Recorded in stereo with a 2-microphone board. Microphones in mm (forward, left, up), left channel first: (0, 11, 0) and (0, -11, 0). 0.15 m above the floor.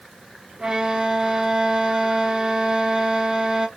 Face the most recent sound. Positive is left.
turn(degrees=-40)  # may be behind; listen again after turning